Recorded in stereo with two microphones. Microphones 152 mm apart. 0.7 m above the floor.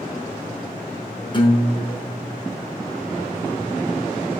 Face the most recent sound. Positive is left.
turn(degrees=30)  # may be behind; listen again after turning